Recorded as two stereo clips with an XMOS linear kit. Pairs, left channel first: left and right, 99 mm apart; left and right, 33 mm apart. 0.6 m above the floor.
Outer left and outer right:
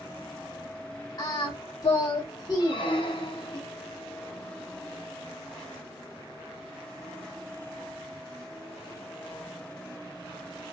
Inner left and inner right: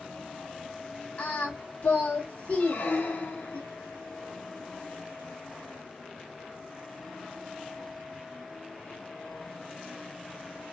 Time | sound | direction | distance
1.2 | singing | 40° left (ahead or behind) | 1.2 m
2.6 | a squeak | 55° left (ahead or behind) | 0.8 m